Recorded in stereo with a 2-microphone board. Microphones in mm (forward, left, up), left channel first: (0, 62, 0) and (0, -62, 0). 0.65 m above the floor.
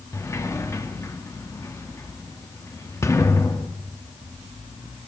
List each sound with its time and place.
0.1 s a sliding door: 25° left (ahead or behind), 0.7 m